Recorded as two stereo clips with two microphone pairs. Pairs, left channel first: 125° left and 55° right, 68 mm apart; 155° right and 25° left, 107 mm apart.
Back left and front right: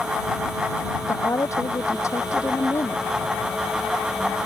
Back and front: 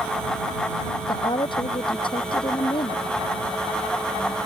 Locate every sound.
1.1 s a woman speaking: 165° left